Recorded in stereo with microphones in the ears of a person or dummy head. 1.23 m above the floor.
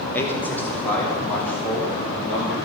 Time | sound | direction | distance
0.1 | a man speaking | 10° left (ahead or behind) | 1.2 m